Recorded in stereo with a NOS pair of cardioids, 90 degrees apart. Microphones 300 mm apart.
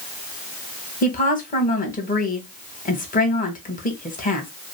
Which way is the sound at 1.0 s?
30° left.